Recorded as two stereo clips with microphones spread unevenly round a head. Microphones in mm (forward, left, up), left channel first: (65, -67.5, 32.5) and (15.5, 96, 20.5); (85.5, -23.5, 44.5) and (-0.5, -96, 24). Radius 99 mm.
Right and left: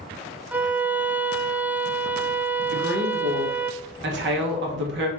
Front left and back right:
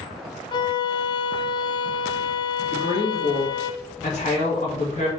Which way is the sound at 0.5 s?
25° left.